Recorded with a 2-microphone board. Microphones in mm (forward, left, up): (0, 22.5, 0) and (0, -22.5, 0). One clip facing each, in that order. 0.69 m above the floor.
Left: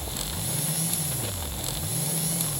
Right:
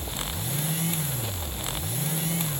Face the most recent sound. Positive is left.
No sound to turn to.